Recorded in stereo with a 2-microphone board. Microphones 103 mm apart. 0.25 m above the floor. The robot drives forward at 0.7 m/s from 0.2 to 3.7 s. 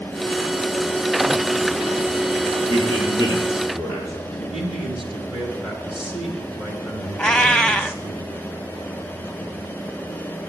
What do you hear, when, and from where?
2.7 s a man speaking: 35° right (ahead or behind), 6 m
4.3 s a man speaking: 5° right (ahead or behind), 3.5 m
7.2 s a cat meowing: 10° left (ahead or behind), 0.5 m